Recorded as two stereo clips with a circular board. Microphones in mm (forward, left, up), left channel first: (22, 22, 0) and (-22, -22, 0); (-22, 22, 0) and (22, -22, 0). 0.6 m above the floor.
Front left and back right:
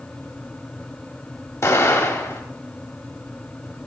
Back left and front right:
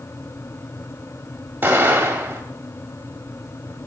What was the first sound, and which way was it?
An explosion, 15° left.